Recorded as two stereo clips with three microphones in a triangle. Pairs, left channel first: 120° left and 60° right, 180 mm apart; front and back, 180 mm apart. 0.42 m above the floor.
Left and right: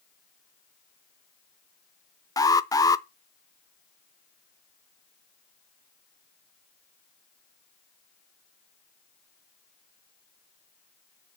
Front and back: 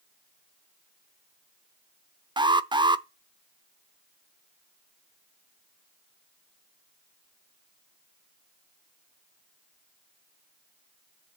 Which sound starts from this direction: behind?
An alarm, at 2.4 s.